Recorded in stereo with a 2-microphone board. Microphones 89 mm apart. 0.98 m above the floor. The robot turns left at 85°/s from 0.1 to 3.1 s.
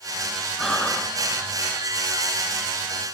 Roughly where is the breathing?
Centre.